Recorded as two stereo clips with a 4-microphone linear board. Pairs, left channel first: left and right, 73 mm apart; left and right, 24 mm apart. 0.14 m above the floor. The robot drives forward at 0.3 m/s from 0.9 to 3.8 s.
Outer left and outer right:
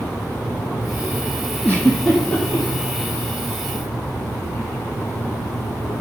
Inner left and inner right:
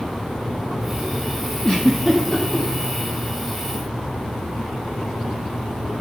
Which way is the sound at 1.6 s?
30° left (ahead or behind).